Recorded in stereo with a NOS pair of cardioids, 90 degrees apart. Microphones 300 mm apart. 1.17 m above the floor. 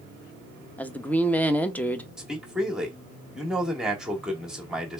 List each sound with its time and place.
0.8 s a woman speaking: 5° left, 0.7 m
2.2 s a man speaking: straight ahead, 1.7 m